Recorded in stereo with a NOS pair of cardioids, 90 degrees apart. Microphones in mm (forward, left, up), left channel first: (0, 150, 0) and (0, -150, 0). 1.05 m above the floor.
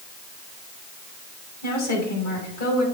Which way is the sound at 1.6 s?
65° left.